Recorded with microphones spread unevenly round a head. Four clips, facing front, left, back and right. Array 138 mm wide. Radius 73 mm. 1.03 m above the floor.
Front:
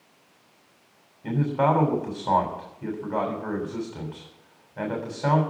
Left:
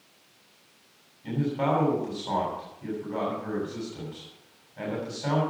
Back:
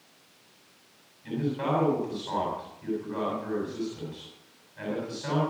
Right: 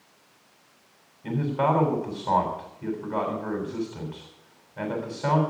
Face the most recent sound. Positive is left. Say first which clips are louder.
# right 2 dB, front 6 dB
turn(degrees=-25)